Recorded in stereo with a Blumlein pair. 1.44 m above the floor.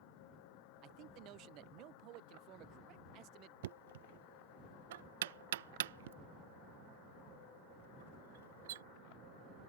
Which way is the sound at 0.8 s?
35° right.